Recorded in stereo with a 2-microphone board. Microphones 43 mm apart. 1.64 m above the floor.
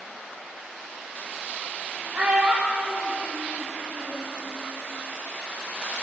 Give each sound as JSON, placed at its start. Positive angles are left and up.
{"t": 2.1, "sound": "a child speaking", "side_deg": -40, "distance_m": 1.4}